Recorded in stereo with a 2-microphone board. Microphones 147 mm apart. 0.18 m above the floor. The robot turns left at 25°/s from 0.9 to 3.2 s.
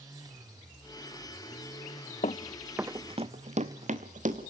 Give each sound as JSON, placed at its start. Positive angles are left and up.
{"t": 2.2, "sound": "running footsteps", "side_deg": 55, "distance_m": 0.5}